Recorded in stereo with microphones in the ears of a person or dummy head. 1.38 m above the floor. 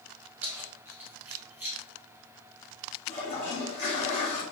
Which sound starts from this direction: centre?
Keys jangling, at 0.4 s.